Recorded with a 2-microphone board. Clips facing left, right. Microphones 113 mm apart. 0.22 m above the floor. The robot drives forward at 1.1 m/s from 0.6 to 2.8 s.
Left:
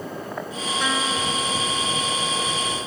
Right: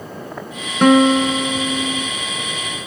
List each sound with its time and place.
0.8 s a guitar: 60° right (ahead or behind); by 2.1 s 55° right (ahead or behind)